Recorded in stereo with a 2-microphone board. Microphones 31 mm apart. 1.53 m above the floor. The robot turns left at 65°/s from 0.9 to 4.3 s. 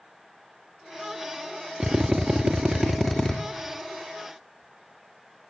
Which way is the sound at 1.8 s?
100° right.